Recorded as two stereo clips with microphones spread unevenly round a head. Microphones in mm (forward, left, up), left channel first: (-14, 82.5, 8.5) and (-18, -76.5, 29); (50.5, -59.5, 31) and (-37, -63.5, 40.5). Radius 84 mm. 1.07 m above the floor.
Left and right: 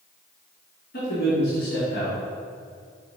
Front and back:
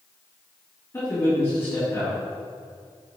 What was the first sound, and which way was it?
A man speaking, 70° left.